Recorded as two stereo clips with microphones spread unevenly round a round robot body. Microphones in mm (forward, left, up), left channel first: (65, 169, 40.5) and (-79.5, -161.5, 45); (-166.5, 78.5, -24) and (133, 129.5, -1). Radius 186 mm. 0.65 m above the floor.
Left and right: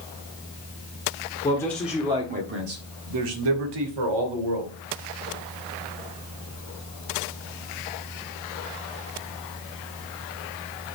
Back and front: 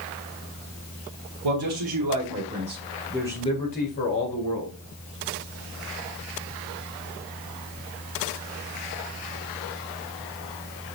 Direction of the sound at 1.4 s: 10° right.